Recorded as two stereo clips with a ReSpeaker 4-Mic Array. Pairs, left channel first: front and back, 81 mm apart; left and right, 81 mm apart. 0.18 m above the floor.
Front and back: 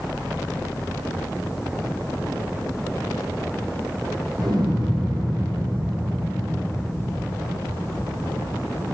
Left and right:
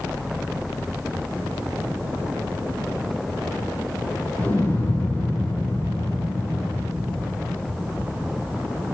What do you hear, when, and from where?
4.4 s an explosion: 160° left, 7.5 m